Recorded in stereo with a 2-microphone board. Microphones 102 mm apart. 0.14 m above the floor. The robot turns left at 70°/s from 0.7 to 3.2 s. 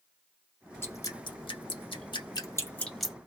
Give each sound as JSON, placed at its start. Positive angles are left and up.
{"t": 0.8, "sound": "dripping", "side_deg": 20, "distance_m": 1.5}